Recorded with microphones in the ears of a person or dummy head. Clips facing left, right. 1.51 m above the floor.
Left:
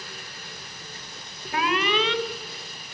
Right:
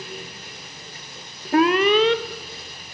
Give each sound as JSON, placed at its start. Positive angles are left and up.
{"t": 1.5, "sound": "an alarm", "side_deg": -40, "distance_m": 0.8}